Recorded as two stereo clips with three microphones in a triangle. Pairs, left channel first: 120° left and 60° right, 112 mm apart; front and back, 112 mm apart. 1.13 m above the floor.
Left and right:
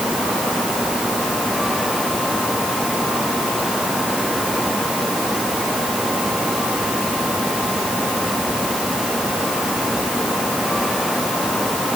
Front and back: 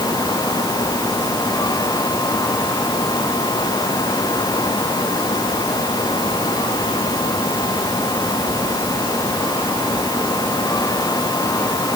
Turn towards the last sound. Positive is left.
No sound to turn to.